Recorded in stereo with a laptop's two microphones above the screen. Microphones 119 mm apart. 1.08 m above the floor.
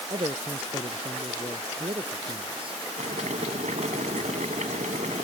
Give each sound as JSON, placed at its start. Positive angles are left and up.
{"t": 0.1, "sound": "a man speaking", "side_deg": -45}
{"t": 3.0, "sound": "boiling", "side_deg": -75}